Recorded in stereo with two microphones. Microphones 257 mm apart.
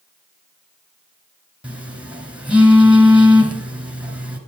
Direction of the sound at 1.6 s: 5° right (ahead or behind).